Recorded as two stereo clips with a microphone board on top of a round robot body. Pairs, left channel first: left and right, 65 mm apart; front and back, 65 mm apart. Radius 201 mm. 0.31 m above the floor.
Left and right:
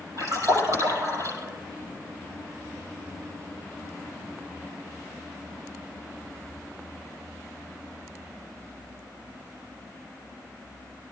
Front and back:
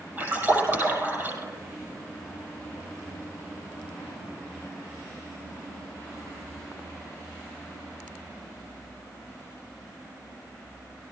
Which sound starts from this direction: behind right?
A splash, at 0.2 s.